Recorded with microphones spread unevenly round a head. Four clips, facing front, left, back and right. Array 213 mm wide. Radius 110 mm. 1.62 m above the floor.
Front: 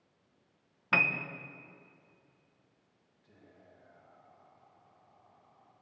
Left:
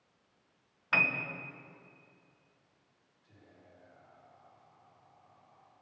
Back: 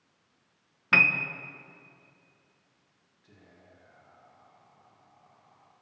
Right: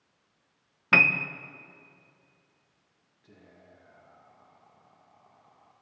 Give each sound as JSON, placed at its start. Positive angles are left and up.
{"t": 0.9, "sound": "a piano", "azimuth_deg": -100, "distance_m": 1.3}
{"t": 3.2, "sound": "whispering", "azimuth_deg": -100, "distance_m": 2.5}